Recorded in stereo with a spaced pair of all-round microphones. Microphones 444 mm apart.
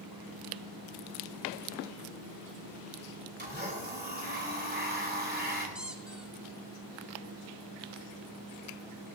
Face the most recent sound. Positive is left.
turn(degrees=0)  # may be behind; listen again after turning